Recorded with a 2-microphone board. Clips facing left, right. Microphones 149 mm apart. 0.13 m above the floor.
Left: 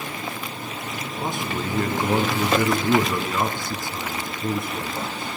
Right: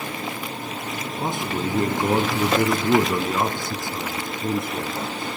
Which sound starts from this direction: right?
A man speaking, at 1.2 s.